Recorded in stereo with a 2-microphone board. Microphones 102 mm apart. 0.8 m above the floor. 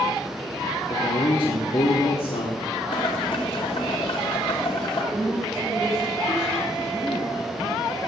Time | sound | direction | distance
0.9 | a man speaking | 60° left (ahead or behind) | 2 m
2.9 | boiling | 65° left (ahead or behind) | 2.5 m
5.1 | a woman speaking | centre (ahead or behind) | 8.5 m